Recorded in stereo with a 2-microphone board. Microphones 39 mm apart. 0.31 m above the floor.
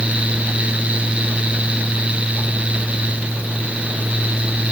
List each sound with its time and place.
Only background noise.